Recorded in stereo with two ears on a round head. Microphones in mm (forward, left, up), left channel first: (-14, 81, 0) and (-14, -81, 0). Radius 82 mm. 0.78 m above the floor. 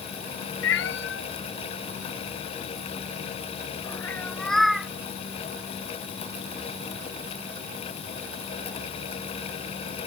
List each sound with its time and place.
0.6 s a cat meowing: 85° left; by 4.9 s 5° right (ahead or behind)